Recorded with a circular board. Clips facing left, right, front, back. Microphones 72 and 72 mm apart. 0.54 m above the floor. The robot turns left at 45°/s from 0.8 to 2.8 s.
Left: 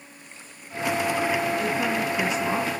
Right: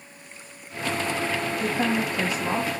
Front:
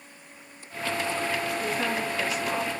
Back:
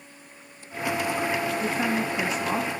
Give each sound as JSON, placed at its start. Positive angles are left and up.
{"t": 1.6, "sound": "a woman speaking", "azimuth_deg": -95, "distance_m": 3.5}